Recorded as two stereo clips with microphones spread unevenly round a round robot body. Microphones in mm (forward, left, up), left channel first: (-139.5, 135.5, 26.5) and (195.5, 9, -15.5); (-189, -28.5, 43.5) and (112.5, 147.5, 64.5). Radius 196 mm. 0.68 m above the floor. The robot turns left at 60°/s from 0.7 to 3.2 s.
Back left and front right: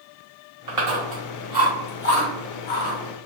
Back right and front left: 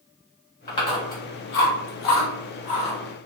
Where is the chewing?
80° right, 1.2 m; by 3.0 s 140° left, 1.2 m.